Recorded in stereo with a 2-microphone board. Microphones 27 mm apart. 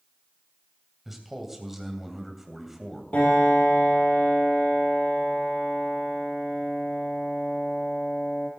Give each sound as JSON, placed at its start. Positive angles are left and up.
{"t": 1.1, "sound": "a man speaking", "side_deg": -5, "distance_m": 2.5}
{"t": 3.1, "sound": "a piano", "side_deg": 70, "distance_m": 6.0}